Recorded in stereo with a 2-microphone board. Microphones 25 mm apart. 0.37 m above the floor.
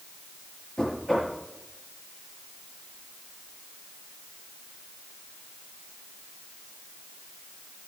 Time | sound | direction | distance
0.8 | knocking | 30° left (ahead or behind) | 6.5 m